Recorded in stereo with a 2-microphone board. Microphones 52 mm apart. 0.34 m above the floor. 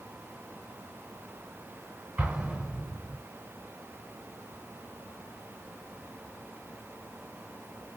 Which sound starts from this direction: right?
An explosion, at 2.2 s.